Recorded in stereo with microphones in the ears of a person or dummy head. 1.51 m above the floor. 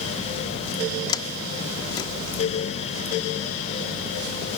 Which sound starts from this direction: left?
A sliding door, at 1.1 s.